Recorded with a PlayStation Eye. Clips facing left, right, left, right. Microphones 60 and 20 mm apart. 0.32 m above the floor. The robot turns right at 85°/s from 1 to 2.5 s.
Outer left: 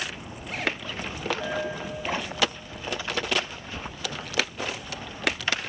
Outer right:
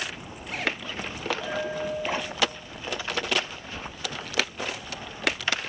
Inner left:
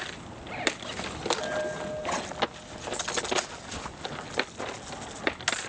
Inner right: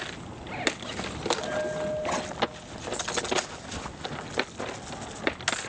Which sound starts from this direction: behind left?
A bell, at 1.4 s.